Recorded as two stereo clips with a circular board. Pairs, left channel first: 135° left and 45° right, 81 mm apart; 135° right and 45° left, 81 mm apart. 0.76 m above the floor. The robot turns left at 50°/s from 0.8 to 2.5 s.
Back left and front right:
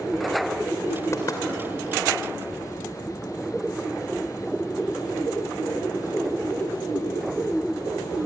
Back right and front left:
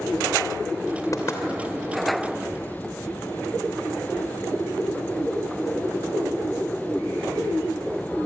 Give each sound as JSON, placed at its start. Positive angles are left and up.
{"t": 1.1, "sound": "knocking", "azimuth_deg": -175, "distance_m": 3.0}